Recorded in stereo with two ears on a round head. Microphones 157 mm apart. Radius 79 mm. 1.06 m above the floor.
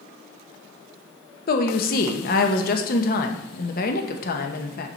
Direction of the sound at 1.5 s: 50° left (ahead or behind).